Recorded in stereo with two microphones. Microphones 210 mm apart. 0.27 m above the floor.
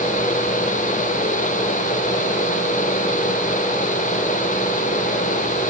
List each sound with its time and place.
Only background noise.